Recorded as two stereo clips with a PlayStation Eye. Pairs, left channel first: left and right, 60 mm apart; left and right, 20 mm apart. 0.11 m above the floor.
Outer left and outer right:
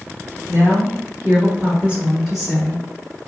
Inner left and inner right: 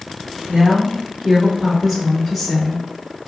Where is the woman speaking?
50° right (ahead or behind), 1.6 m; by 2.9 s 15° left (ahead or behind), 1.1 m.